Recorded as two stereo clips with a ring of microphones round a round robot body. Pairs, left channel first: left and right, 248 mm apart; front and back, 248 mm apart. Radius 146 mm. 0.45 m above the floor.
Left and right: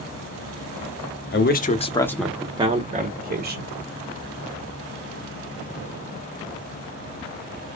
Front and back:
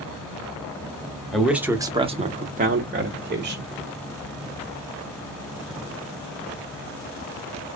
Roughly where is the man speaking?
Left.